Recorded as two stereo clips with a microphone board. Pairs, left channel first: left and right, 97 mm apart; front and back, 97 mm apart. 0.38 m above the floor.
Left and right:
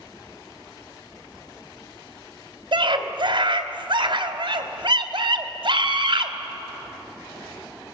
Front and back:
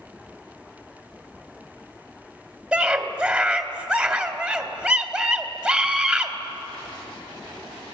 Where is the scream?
100° right, 1.8 m.